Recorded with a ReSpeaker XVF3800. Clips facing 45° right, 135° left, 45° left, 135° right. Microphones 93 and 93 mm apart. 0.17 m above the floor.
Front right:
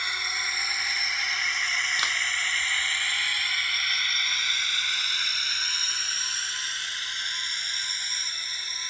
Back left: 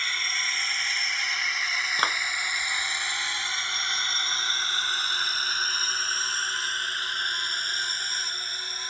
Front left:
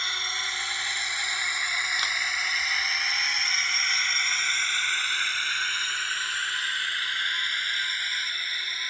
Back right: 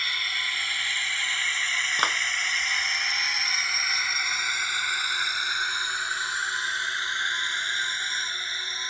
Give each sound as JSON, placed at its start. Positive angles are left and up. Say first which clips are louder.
{"t": 0.0, "sound": "a drone", "louder": "even, back right 1 dB", "azimuth_deg": 15}
{"t": 2.0, "sound": "a clap", "louder": "back left 4 dB, back right 5 dB", "azimuth_deg": -175}